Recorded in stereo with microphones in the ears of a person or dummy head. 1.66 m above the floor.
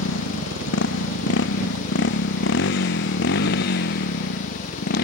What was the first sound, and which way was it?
A motorcycle, 80° left.